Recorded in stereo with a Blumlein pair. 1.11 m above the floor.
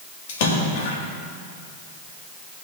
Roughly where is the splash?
Ahead left.